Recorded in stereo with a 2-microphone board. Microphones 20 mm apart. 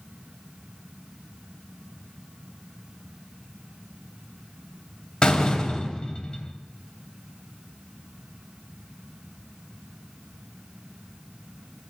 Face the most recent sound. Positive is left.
turn(degrees=50)  # may be behind; listen again after turning